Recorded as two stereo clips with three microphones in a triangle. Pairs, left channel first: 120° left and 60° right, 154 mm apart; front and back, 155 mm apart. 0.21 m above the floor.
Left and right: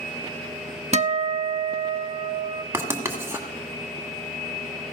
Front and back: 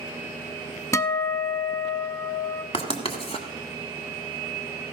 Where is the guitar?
60° right, 0.5 m.